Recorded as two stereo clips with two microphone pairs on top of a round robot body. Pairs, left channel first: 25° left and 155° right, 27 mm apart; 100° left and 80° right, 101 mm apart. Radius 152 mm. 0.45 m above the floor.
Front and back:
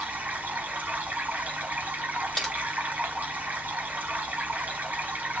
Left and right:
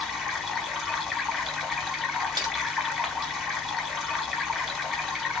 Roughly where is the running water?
Behind.